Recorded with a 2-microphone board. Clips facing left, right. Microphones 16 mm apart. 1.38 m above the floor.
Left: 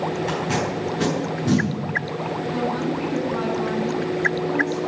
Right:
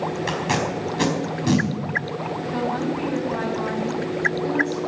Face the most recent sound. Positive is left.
turn(degrees=-75)  # may be behind; listen again after turning